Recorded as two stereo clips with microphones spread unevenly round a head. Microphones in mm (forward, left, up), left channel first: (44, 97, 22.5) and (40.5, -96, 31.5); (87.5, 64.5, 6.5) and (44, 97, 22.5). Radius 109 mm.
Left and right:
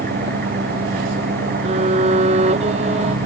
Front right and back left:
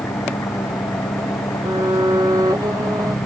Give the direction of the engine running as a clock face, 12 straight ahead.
2 o'clock.